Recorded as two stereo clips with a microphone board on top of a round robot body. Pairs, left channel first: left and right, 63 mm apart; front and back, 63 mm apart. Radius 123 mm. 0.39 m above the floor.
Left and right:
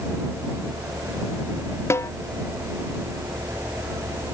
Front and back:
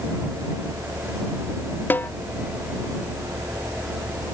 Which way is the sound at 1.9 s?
55° left.